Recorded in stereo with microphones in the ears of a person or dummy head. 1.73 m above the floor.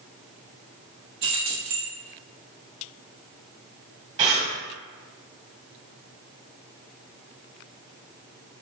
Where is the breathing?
25° right (ahead or behind), 1.0 m.